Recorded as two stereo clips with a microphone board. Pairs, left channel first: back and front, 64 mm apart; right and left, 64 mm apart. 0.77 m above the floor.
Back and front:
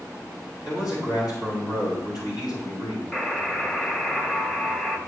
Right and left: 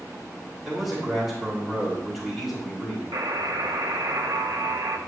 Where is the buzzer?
110° left, 1.4 m.